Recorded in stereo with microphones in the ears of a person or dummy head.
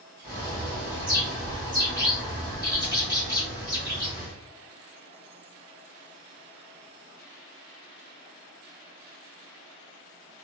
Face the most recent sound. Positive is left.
turn(degrees=20)  # may be behind; listen again after turning